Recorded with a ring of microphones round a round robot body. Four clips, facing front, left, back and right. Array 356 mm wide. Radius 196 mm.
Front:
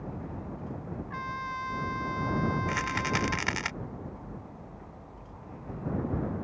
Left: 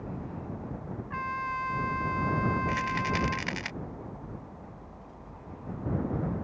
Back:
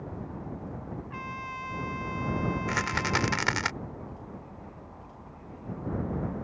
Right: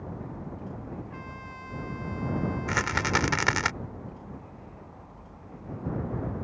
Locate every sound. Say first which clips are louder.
1.1 s a trumpet: left 9 dB, front 5 dB; 75° left
2.7 s a rattle: right 2 dB, back 1 dB; 110° right